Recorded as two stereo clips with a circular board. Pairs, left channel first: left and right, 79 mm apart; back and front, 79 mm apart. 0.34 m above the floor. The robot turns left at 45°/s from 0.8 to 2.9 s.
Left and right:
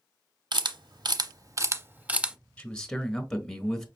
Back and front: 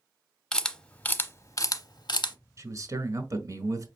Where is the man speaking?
20° left, 1.2 m; by 3.9 s 5° left, 1.2 m.